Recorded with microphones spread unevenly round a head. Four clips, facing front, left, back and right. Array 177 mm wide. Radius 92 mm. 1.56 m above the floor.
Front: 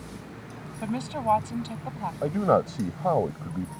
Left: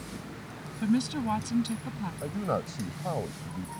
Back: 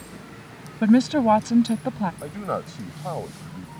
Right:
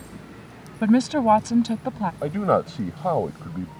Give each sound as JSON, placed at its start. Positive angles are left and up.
{"t": 0.8, "sound": "a woman speaking", "azimuth_deg": -150}
{"t": 2.2, "sound": "a man speaking", "azimuth_deg": -55}